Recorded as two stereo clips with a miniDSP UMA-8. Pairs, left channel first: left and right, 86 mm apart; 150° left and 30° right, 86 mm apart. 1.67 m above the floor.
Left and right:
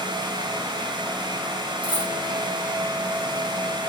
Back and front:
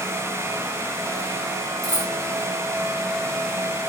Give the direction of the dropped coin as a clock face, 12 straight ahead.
1 o'clock.